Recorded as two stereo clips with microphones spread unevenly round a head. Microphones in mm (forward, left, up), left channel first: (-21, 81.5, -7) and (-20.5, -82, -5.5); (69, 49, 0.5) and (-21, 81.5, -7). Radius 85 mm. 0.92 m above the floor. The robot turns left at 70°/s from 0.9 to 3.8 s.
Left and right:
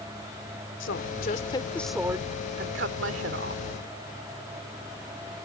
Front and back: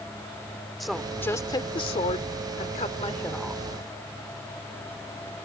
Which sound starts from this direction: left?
A woman speaking, at 0.8 s.